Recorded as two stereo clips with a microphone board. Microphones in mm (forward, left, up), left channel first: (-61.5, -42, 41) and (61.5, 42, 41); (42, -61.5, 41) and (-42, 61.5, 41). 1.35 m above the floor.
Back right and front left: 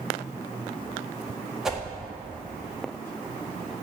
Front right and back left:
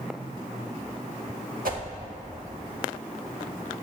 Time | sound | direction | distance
1.6 | a whoosh | 120° left | 1.5 m